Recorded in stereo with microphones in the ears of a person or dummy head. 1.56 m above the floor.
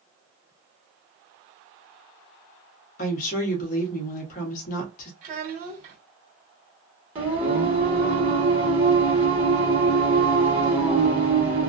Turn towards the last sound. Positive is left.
turn(degrees=-15)  # may be behind; listen again after turning